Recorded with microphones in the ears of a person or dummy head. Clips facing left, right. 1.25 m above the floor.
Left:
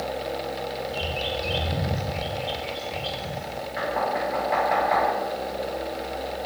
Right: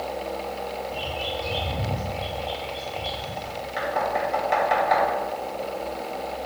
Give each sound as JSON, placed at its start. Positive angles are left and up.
{"t": 0.9, "sound": "a bird", "side_deg": 20, "distance_m": 1.3}
{"t": 3.8, "sound": "knocking", "side_deg": -50, "distance_m": 1.8}